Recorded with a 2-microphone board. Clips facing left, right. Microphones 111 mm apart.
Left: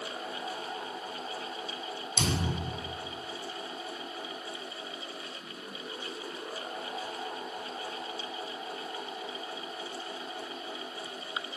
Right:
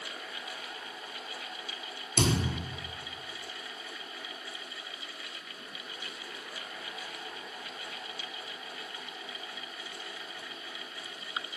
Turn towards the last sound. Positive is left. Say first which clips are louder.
# right 3 dB
turn(degrees=-55)  # may be behind; listen again after turning